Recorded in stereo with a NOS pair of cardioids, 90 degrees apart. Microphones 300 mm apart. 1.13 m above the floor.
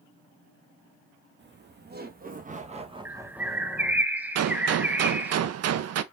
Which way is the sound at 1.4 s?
35° right.